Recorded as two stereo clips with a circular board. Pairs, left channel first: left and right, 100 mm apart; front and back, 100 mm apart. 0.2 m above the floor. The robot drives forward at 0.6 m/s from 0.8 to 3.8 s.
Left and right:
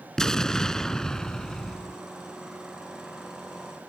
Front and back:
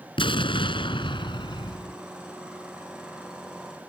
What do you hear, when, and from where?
0.2 s an explosion: 5° left; by 2.0 s 10° left